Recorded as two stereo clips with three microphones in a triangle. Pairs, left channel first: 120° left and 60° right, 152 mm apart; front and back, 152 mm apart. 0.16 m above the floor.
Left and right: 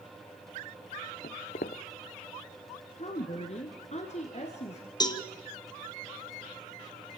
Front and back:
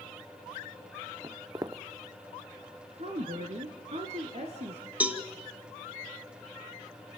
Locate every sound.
1.2 s footsteps: 115° left, 0.6 m
3.0 s a woman speaking: 150° left, 2.5 m
5.0 s a cowbell: 110° left, 1.4 m